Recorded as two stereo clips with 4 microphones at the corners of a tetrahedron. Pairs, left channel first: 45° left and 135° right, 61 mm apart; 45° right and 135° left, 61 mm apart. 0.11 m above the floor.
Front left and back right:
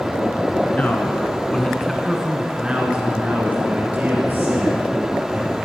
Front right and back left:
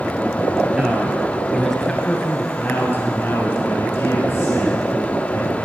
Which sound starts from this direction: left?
A man speaking, at 0.7 s.